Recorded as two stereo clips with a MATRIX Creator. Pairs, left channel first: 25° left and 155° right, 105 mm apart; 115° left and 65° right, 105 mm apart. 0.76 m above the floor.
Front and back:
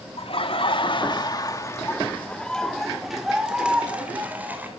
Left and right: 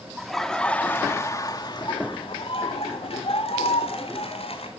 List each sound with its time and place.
0.2 s laughter: 20° left, 2 m; by 4.7 s 130° left, 4 m